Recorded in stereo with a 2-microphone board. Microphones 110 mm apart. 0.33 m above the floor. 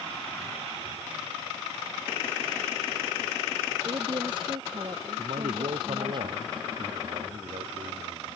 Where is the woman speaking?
45° right (ahead or behind); by 6.2 s 40° right (ahead or behind).